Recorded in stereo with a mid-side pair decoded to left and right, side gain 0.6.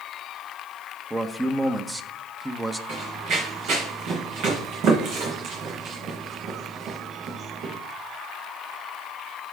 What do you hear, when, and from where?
1.1 s a man speaking: 15° right, 1.1 m
2.9 s running footsteps: 65° right, 4 m